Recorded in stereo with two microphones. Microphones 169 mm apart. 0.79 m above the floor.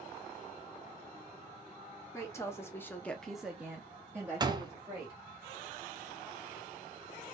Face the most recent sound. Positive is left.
turn(degrees=-25)  # may be behind; listen again after turning